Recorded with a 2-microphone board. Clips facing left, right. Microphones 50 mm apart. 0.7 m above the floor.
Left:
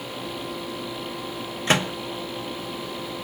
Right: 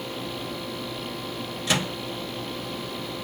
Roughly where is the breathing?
I don't hear breathing.